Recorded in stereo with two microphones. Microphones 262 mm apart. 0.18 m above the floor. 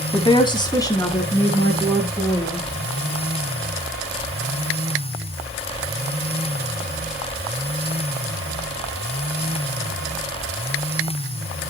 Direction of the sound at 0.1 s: 20° left (ahead or behind).